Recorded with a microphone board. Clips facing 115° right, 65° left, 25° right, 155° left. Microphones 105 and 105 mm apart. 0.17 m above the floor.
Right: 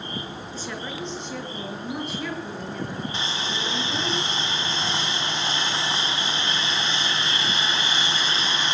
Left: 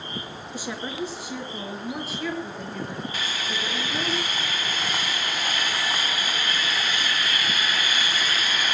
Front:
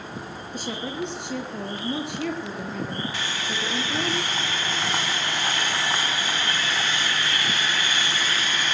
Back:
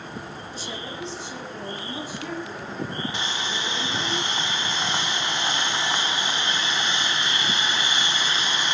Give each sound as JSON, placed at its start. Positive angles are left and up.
{"t": 0.5, "sound": "a woman speaking", "azimuth_deg": -5, "distance_m": 3.0}
{"t": 3.1, "sound": "sawing", "azimuth_deg": -150, "distance_m": 0.7}